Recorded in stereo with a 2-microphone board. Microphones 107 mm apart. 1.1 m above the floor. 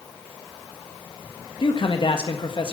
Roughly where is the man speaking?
Left.